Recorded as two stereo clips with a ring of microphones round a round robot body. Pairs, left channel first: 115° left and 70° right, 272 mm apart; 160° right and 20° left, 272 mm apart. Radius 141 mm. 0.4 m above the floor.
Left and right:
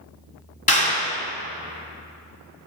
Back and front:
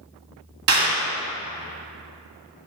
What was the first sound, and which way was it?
A clap, 50° left.